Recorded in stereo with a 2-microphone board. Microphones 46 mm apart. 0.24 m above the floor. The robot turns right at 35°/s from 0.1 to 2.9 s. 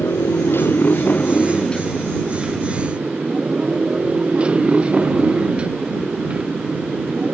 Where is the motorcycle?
110° left; by 7.3 s 155° right.